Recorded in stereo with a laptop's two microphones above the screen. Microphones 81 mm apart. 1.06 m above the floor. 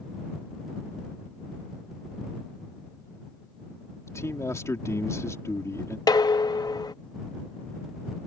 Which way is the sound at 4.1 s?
35° left (ahead or behind).